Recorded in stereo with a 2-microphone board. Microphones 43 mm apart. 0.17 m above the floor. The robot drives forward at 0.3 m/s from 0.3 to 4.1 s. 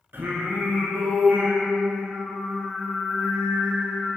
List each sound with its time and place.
0.1 s singing: 65° right (ahead or behind), 0.5 m; by 4.1 s 20° right (ahead or behind), 1.3 m